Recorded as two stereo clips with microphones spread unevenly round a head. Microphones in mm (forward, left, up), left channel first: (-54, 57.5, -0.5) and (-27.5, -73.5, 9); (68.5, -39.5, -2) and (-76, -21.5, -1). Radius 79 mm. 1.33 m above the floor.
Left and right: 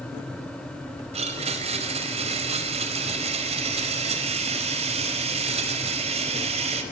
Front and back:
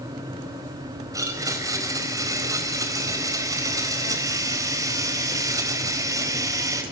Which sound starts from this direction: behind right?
A blender, at 1.1 s.